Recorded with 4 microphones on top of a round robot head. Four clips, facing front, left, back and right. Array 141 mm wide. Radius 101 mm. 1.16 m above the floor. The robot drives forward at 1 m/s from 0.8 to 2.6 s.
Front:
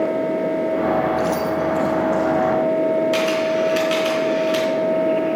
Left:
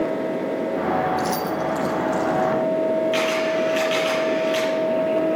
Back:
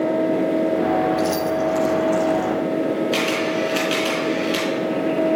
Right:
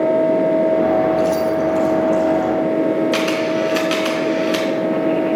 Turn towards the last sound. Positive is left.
turn(degrees=-85)